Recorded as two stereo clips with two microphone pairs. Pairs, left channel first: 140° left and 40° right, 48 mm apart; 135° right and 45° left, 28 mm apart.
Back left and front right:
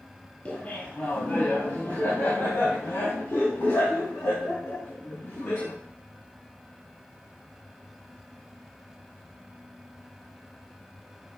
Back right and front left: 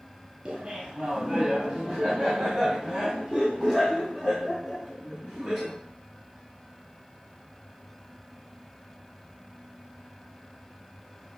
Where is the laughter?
95° left, 1.7 m; by 5.7 s 130° left, 4.5 m.